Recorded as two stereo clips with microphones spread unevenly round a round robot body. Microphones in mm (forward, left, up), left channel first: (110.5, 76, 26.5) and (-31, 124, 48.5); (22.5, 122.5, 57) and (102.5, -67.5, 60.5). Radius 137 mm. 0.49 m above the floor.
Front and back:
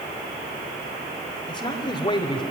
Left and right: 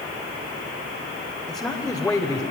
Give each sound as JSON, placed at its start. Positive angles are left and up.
{"t": 1.5, "sound": "a man speaking", "azimuth_deg": 30, "distance_m": 2.0}